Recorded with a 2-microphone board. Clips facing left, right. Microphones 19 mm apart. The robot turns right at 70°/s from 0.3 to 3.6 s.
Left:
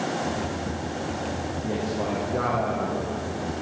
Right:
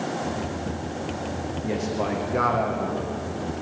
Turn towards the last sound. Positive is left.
turn(degrees=35)